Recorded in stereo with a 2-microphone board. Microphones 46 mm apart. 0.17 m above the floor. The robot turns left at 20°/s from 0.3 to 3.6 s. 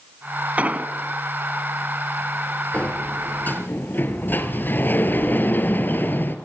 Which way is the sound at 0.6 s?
35° right (ahead or behind).